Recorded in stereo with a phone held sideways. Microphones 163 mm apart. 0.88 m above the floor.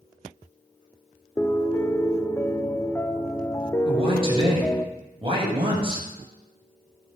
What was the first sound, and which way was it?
A piano, 15° left (ahead or behind).